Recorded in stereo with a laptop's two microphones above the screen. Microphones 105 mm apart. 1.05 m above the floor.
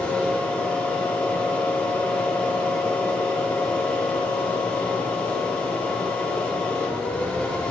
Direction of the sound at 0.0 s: 10° left (ahead or behind).